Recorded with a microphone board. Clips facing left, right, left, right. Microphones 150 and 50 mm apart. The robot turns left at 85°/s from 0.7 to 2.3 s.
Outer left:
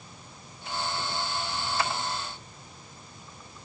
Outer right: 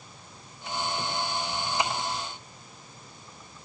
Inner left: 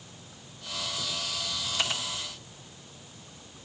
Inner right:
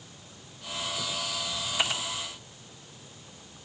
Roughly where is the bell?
No bell in this recording.